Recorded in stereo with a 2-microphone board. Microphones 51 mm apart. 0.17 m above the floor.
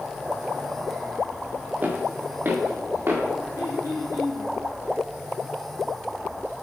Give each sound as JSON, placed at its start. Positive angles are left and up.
{"t": 1.8, "sound": "footsteps", "side_deg": -35, "distance_m": 2.5}
{"t": 3.5, "sound": "throat clearing", "side_deg": 55, "distance_m": 1.9}